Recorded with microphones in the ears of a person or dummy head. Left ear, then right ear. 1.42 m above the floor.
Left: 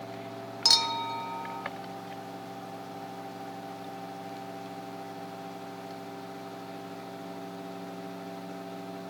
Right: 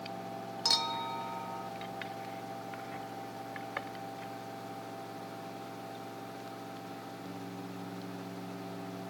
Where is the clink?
20° left (ahead or behind).